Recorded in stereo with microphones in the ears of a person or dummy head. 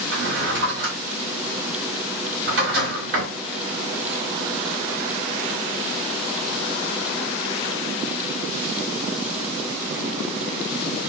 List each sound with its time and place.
0.1 s a drawer: 60° right (ahead or behind), 1.6 m